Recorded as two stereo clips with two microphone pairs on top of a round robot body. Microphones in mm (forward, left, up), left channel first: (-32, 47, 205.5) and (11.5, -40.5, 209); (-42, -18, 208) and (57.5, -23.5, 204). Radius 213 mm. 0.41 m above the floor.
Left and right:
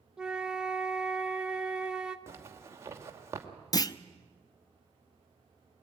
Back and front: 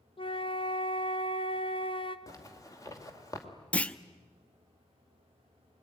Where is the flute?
145° right, 1.2 m.